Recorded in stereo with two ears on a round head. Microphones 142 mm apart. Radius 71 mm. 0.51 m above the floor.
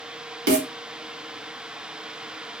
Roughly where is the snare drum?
Right.